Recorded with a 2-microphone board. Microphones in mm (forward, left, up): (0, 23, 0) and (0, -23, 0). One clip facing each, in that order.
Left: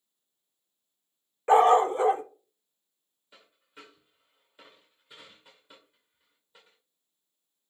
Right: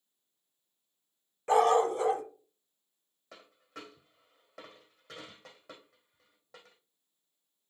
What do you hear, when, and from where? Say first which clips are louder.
1.5 s a dog barking: left 5 dB; 30° left (ahead or behind), 0.5 m
3.3 s a dropped coin: right 4 dB; 75° right (ahead or behind), 3 m